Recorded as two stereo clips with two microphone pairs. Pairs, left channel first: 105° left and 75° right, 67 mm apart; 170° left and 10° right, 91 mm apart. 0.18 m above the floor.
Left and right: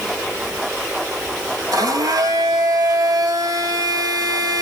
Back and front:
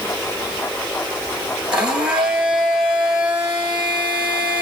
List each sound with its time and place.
1.7 s a blender: 90° right, 1.5 m